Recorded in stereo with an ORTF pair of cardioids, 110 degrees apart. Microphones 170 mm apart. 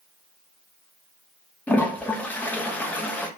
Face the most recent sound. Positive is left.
turn(degrees=10)